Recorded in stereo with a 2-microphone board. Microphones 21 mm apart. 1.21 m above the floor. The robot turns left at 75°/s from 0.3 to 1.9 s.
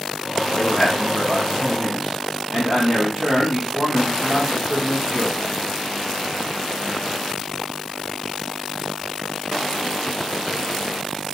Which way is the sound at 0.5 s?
60° left.